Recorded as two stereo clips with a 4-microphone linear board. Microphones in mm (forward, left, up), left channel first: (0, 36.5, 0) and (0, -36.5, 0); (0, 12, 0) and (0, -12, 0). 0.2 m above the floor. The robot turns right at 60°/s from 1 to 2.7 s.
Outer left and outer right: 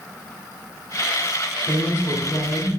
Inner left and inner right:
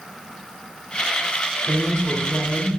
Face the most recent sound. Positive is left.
turn(degrees=165)